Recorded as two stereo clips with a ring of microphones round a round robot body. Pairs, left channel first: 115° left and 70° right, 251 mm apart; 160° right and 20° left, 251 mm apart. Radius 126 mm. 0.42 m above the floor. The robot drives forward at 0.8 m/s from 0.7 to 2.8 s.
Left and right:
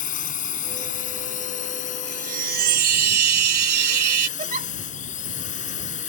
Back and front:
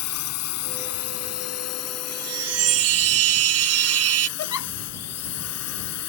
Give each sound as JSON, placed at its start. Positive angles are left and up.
{"t": 0.0, "sound": "a drone", "azimuth_deg": 170}
{"t": 2.1, "sound": "a chime", "azimuth_deg": -10}
{"t": 4.4, "sound": "a giggle", "azimuth_deg": -130}